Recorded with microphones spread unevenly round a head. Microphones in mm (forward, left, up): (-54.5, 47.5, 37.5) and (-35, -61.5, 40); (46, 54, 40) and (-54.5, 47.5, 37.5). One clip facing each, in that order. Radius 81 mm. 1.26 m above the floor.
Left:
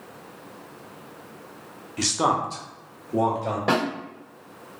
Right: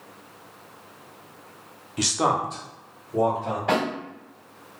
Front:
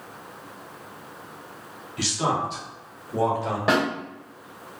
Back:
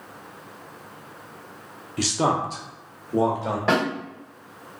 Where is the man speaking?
145° right, 0.7 m; by 3.6 s 115° left, 1.7 m.